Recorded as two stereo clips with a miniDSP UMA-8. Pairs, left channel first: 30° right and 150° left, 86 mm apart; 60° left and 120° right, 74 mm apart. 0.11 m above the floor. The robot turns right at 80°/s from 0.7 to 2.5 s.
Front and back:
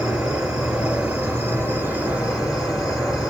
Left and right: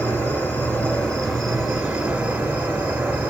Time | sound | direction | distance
0.0 | an insect | 75° left | 2.5 m